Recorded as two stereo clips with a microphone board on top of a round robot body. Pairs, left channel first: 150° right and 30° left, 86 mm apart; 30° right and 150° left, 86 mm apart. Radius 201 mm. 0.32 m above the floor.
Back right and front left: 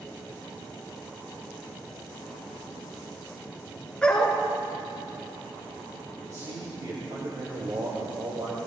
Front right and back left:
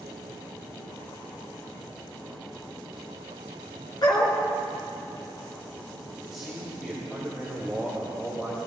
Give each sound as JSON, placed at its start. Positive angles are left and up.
{"t": 4.0, "sound": "a dog barking", "azimuth_deg": -70, "distance_m": 1.7}
{"t": 6.2, "sound": "a man speaking", "azimuth_deg": 65, "distance_m": 2.5}